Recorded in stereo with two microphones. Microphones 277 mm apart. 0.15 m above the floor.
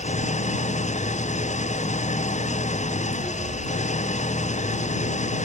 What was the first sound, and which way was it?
An engine running, 25° left (ahead or behind).